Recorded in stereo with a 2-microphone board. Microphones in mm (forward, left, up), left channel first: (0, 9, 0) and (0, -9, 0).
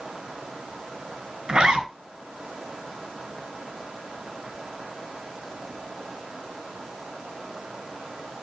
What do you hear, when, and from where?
1.5 s a zipper: 50° right (ahead or behind), 3.5 m